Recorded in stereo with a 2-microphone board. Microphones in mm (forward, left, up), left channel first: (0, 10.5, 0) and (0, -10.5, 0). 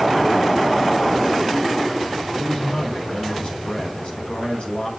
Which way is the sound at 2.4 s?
70° left (ahead or behind).